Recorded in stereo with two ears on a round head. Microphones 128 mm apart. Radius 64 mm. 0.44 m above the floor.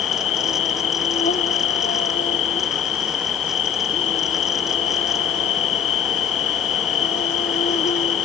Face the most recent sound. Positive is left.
turn(degrees=50)  # may be behind; listen again after turning